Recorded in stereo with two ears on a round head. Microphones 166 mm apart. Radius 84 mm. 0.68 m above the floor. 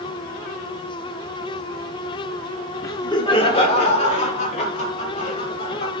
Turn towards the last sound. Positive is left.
turn(degrees=45)  # may be behind; listen again after turning